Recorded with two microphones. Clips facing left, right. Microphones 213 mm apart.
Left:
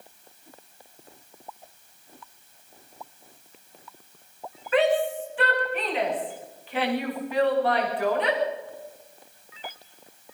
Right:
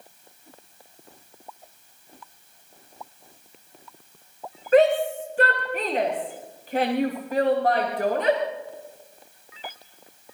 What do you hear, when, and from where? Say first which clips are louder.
4.7 s a shout: right 4 dB; 45° right (ahead or behind), 8.5 m